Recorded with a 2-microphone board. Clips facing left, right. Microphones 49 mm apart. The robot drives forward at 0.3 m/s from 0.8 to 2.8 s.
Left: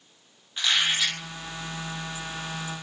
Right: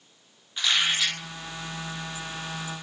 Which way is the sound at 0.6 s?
5° left (ahead or behind).